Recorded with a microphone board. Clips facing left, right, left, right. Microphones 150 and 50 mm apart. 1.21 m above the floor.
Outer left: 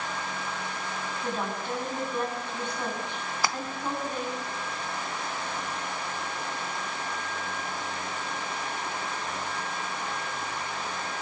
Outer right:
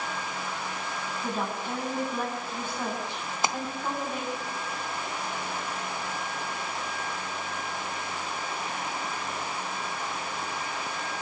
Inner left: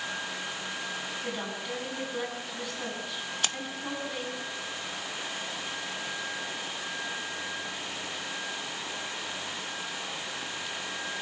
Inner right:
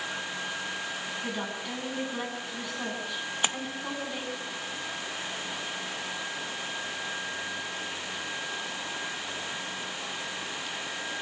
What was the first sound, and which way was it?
A woman speaking, 5° right (ahead or behind).